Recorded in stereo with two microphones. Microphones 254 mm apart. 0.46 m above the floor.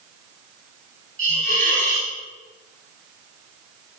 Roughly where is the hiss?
Left.